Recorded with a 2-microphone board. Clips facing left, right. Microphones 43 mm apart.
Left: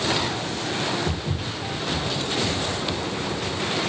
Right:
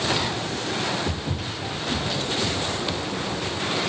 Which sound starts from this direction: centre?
Footsteps, at 1.1 s.